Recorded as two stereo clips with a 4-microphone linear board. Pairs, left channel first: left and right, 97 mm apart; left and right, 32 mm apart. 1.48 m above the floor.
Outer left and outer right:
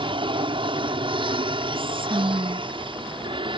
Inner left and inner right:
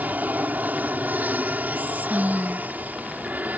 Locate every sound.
0.0 s an aircraft: 60° right (ahead or behind)
1.8 s whispering: 65° right (ahead or behind)